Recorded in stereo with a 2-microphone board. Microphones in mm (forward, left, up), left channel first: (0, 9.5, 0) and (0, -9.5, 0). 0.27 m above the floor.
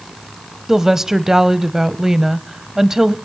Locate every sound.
0.7 s a woman speaking: 25° right (ahead or behind), 1.2 m